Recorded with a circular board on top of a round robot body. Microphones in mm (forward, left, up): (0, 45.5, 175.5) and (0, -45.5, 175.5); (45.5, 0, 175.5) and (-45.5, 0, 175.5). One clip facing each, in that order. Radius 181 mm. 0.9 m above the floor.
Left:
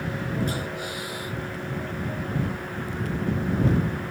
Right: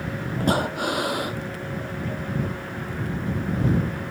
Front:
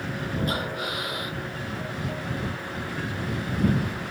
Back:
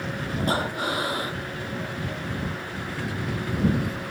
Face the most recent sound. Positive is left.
turn(degrees=-120)